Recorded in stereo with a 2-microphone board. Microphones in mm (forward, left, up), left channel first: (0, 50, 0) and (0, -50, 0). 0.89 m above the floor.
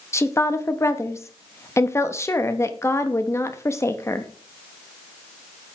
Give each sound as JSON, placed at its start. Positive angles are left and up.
{"t": 0.1, "sound": "a woman speaking", "side_deg": 25, "distance_m": 1.0}